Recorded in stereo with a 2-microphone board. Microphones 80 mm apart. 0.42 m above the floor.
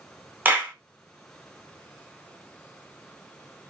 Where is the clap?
25° right (ahead or behind), 0.7 m.